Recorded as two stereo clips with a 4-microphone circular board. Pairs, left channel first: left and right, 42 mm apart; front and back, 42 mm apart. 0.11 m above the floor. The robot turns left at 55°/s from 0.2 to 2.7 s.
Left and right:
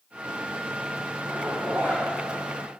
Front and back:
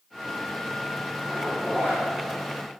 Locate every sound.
1.3 s a zipper: 5° right, 3.5 m; by 2.0 s 45° right, 3.5 m